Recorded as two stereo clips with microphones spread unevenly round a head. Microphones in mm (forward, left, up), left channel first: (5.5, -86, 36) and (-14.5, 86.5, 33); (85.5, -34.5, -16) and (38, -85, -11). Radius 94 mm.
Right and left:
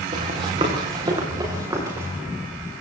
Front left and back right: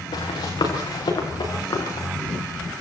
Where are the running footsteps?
40° left, 6.5 m; by 2.1 s 20° left, 8 m.